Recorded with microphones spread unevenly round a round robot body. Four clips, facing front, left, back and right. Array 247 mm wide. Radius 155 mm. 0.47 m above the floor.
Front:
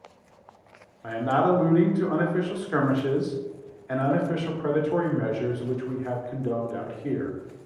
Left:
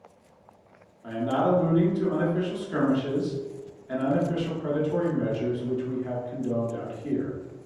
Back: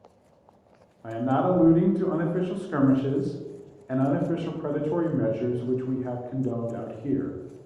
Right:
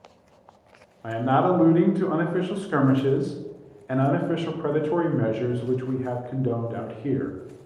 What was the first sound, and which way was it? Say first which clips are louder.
A man speaking: right 3 dB, front 1 dB; 85° right.